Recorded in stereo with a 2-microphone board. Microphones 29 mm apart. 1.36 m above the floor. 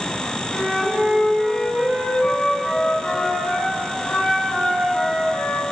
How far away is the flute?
About 3.5 m.